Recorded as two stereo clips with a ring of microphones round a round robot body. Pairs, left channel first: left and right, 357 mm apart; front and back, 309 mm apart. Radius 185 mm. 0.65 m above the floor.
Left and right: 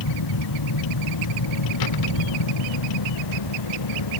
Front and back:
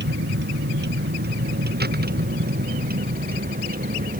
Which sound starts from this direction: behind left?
A vehicle, at 0.0 s.